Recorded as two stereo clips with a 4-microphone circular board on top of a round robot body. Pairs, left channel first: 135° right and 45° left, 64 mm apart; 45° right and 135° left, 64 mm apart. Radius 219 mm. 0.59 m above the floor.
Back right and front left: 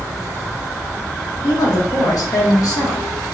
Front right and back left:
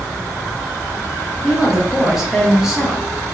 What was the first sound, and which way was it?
A woman speaking, 140° right.